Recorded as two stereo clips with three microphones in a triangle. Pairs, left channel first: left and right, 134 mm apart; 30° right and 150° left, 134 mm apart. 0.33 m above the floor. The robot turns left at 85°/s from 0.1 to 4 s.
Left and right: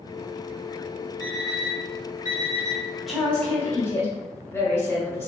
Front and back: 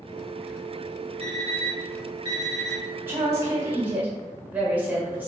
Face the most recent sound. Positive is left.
turn(degrees=100)